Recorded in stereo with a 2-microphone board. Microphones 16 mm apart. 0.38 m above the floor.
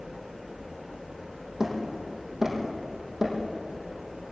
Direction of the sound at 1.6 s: 35° right (ahead or behind).